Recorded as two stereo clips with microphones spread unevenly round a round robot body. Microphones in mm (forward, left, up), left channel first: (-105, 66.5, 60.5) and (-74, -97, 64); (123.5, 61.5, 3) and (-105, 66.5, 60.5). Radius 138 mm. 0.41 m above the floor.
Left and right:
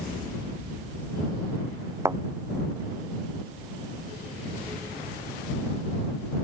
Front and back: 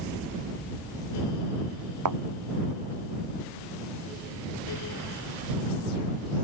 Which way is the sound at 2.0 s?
155° right.